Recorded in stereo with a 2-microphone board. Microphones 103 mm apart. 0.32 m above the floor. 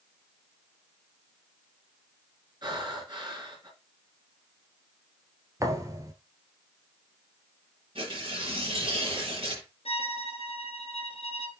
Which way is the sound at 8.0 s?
55° right (ahead or behind).